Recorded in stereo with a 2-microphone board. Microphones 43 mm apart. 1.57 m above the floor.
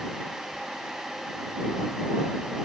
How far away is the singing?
No singing in this recording.